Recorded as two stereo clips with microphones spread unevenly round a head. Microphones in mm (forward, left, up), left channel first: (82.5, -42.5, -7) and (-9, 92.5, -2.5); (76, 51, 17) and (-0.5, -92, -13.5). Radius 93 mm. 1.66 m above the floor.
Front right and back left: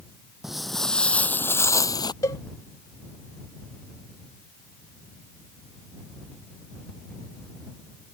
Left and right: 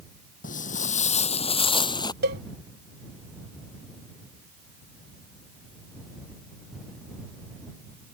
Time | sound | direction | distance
0.4 | footsteps | 35° left | ?
2.2 | a cowbell | 125° right | ?